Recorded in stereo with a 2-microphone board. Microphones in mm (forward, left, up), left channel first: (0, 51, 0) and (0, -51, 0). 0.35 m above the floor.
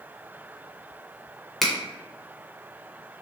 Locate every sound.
1.6 s a finger snap: centre (ahead or behind), 0.6 m